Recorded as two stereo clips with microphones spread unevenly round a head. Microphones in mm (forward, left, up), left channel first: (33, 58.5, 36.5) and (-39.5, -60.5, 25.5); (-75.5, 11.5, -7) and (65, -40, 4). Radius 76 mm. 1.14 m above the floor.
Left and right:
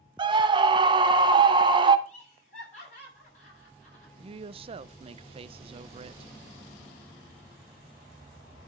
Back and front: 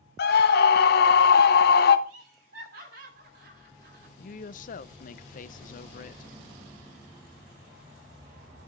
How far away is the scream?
About 1.0 m.